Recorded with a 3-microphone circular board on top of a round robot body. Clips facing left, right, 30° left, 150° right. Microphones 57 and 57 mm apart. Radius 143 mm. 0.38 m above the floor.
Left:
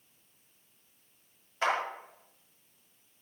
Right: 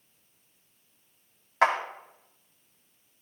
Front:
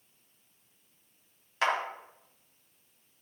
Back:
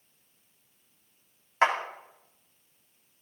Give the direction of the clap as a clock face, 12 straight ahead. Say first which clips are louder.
Right 6 dB, back 4 dB; 3 o'clock.